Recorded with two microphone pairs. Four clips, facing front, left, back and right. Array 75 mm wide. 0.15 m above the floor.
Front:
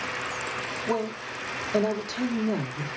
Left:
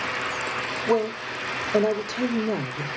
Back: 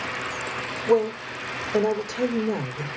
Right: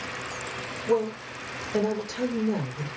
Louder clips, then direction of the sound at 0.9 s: Left 1 dB, back 9 dB; 55° left.